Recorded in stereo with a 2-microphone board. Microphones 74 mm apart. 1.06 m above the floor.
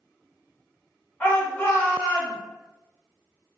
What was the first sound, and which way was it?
A shout, 15° left (ahead or behind).